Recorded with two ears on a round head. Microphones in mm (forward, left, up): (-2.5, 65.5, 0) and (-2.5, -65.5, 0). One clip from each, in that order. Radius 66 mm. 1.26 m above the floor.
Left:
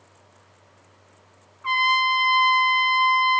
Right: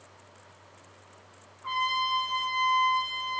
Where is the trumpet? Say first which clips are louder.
Left 8 dB; 50° left (ahead or behind), 0.7 m.